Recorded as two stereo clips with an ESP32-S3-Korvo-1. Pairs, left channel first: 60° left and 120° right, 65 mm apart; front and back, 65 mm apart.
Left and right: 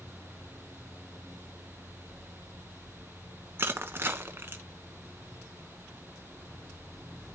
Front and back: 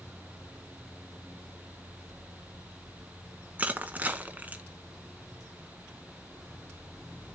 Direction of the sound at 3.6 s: 135° right.